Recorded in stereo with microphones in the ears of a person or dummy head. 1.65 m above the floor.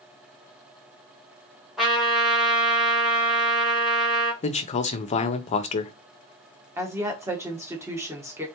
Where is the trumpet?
5° right (ahead or behind), 1.3 m.